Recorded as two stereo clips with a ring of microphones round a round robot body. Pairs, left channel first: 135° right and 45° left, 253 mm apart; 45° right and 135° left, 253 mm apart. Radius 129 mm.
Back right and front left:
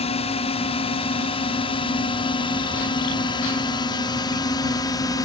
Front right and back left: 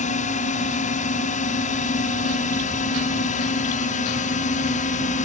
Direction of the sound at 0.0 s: 85° right.